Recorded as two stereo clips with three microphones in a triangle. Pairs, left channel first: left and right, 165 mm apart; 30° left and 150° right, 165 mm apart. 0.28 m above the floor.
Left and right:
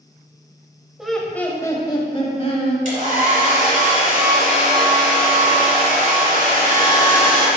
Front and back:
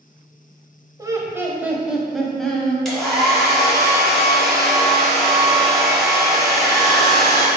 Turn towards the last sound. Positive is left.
turn(degrees=-60)